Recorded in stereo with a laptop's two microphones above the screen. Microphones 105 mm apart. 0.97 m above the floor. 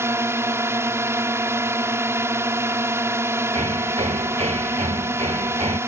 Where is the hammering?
80° right.